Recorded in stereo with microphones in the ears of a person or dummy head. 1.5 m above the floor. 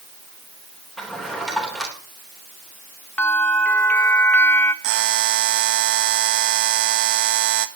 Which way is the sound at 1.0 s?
Centre (ahead or behind).